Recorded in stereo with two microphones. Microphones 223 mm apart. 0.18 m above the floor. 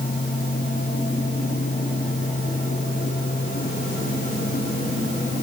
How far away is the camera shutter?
No camera shutter in this recording.